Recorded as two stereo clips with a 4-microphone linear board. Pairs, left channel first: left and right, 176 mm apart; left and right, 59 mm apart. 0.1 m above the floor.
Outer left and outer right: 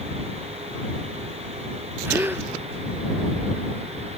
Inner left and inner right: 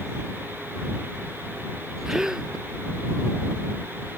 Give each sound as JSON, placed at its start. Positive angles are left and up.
{"t": 2.0, "sound": "a gasp", "side_deg": -10}